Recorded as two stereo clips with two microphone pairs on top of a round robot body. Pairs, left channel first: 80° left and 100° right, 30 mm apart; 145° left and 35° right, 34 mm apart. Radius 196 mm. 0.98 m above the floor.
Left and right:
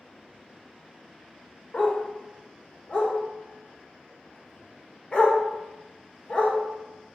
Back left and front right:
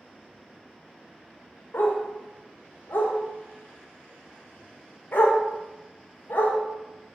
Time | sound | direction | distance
1.7 | a dog barking | 130° left | 1.8 m